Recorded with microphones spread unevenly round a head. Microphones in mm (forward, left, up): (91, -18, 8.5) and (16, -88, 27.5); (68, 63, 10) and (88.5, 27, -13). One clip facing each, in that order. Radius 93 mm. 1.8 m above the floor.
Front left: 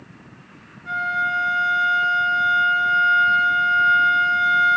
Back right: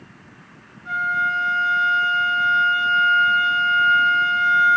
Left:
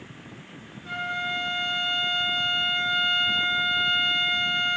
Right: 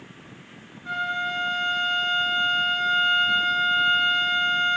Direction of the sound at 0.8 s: 35° left.